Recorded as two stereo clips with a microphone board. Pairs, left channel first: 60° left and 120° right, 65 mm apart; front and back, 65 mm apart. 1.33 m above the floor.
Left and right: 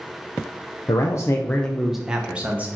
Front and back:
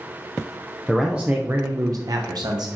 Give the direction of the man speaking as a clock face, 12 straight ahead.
9 o'clock.